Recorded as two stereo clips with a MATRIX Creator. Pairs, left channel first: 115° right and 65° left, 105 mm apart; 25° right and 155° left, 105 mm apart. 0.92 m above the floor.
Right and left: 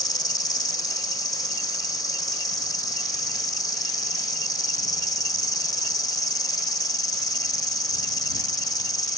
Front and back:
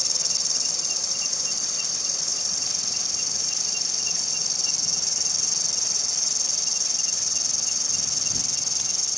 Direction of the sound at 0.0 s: 110° right.